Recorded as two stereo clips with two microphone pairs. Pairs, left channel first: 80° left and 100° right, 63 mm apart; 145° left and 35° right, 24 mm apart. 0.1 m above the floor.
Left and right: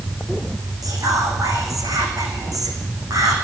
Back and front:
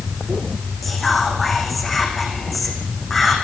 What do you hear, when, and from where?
0.8 s whispering: 120° right, 7 m